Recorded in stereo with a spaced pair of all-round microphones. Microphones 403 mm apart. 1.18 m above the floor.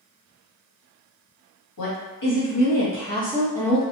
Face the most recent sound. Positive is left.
turn(degrees=0)  # may be behind; listen again after turning